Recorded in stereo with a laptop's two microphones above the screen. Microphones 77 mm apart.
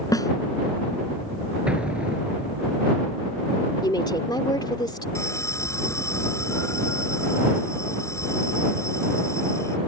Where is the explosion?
15° right (ahead or behind).